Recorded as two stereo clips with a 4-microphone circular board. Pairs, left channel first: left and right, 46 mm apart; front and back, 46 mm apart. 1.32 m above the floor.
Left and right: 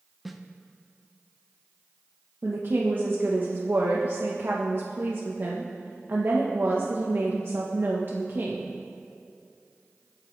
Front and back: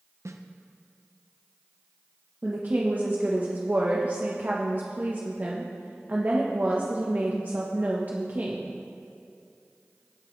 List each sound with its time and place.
0.2 s a snare drum: straight behind, 0.8 m
2.4 s a woman speaking: 125° right, 1.2 m